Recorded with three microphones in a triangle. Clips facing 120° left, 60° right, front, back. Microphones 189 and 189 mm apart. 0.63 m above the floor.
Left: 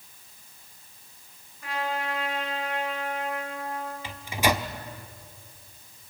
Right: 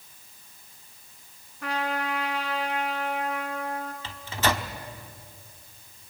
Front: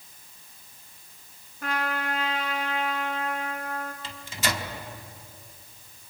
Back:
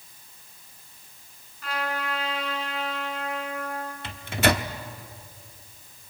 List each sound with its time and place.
1.6 s a trumpet: 40° right, 4 m
4.0 s a microwave: 165° right, 1.0 m